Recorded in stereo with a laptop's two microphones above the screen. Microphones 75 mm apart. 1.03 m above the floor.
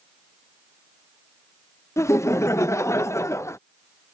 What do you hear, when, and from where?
2.0 s laughter: 40° left (ahead or behind)